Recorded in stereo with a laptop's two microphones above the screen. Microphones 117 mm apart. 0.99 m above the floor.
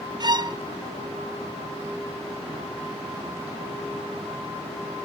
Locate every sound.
0.2 s a violin: 35° right (ahead or behind), 0.6 m